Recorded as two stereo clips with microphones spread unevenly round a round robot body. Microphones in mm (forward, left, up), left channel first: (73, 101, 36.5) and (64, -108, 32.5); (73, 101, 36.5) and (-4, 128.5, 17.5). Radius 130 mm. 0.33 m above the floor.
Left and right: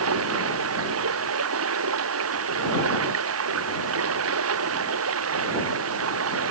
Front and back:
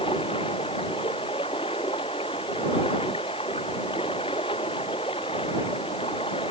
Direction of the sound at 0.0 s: 85° right.